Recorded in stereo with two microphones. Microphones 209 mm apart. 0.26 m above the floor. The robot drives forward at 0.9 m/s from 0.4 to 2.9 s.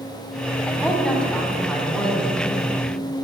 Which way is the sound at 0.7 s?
5° left (ahead or behind).